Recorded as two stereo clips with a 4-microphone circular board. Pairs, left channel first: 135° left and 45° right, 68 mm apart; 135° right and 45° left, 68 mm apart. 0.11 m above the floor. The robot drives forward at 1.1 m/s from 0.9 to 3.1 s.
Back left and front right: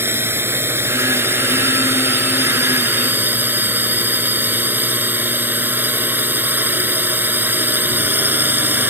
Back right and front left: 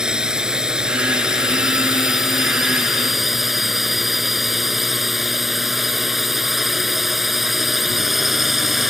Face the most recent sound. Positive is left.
turn(degrees=-40)